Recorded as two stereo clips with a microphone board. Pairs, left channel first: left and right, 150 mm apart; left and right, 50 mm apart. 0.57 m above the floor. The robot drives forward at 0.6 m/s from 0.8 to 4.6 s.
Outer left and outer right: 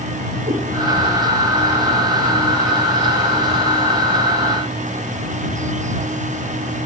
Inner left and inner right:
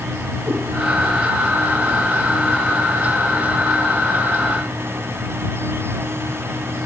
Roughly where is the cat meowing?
Right.